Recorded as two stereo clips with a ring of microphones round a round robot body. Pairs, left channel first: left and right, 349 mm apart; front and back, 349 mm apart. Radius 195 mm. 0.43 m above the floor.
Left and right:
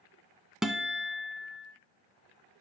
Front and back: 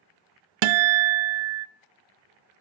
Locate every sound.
0.6 s a guitar: straight behind, 0.5 m